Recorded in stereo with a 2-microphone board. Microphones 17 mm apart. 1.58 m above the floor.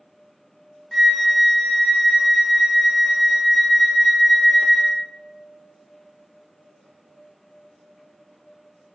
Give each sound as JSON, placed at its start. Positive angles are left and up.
{"t": 0.9, "sound": "a flute", "side_deg": 5, "distance_m": 0.6}